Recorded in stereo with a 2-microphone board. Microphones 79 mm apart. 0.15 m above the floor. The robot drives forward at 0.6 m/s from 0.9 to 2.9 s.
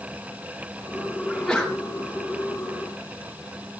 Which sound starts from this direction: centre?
A sneeze, at 1.3 s.